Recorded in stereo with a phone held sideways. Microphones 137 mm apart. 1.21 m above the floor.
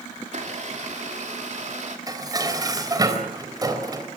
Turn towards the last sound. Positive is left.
turn(degrees=-25)  # may be behind; listen again after turning